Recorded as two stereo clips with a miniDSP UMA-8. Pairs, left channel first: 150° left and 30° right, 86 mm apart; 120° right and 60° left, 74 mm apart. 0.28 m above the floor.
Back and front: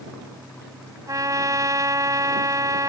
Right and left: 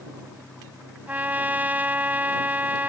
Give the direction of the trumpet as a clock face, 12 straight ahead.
12 o'clock.